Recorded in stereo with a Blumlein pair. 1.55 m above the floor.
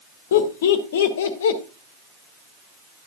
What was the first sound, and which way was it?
Laughter, 60° left.